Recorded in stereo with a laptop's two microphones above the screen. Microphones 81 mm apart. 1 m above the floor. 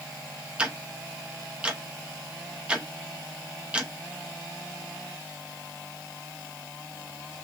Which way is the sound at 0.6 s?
10° right (ahead or behind).